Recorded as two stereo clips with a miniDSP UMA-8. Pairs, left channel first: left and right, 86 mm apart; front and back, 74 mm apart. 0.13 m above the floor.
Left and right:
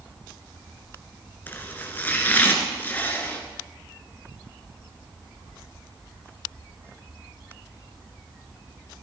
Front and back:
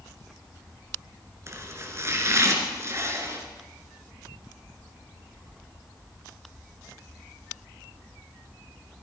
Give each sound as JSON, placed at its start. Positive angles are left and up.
{"t": 1.5, "sound": "chopping", "azimuth_deg": 150, "distance_m": 2.5}